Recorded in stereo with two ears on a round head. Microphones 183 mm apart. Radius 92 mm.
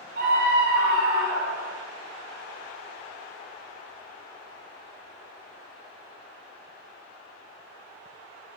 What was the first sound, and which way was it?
A scream, 60° right (ahead or behind).